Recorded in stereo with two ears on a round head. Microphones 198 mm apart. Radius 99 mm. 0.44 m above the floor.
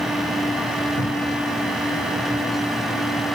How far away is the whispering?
I don't hear whispering.